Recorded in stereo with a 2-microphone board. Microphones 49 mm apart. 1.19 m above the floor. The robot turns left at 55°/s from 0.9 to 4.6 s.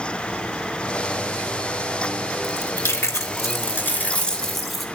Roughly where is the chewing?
Behind left.